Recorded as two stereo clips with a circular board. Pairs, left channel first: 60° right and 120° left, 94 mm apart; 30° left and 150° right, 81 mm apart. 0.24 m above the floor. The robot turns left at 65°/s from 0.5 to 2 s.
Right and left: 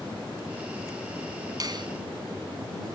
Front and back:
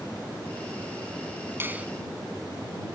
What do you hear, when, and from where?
1.6 s a finger snap: 155° left; by 1.9 s 140° left